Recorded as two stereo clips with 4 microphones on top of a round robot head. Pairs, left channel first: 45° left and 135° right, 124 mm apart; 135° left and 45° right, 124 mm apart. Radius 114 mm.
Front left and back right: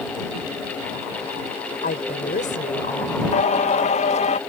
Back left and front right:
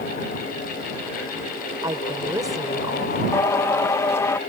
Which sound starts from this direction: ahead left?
Singing, at 3.3 s.